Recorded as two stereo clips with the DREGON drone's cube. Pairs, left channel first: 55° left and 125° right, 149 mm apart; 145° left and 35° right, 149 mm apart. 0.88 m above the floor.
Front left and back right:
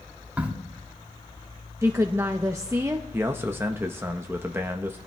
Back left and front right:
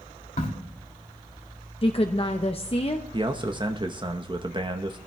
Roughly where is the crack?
Behind left.